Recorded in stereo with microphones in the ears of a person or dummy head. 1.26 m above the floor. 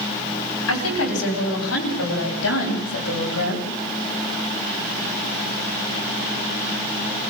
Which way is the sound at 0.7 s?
85° left.